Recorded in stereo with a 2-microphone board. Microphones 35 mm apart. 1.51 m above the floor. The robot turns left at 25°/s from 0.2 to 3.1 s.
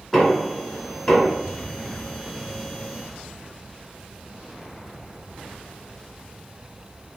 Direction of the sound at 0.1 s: 5° right (ahead or behind).